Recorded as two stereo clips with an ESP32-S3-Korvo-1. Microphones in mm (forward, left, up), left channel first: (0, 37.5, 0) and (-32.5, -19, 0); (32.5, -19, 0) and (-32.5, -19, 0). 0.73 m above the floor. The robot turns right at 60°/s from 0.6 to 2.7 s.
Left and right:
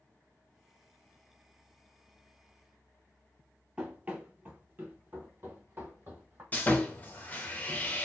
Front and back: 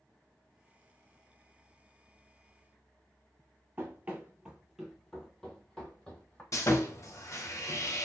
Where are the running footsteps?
175° right, 0.8 m; by 6.4 s 70° right, 1.4 m.